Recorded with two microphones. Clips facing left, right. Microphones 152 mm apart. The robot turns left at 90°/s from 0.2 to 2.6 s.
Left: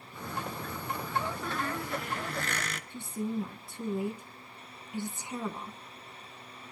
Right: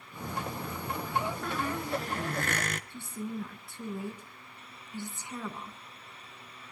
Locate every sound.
1.4 s a squeak: 5° left, 0.8 m; by 2.8 s 100° right, 0.8 m
2.9 s a woman speaking: 20° left (ahead or behind), 1.7 m